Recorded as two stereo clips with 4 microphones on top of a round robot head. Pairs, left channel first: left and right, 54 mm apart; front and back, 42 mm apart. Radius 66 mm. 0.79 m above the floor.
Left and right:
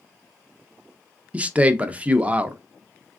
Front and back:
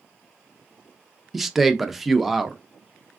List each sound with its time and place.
1.3 s a man speaking: 100° right, 0.6 m